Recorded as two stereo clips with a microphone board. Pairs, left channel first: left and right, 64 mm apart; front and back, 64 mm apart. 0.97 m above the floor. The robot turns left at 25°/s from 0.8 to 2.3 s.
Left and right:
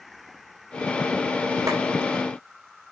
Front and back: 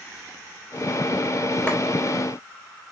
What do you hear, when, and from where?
1.7 s a clap: 65° right, 5 m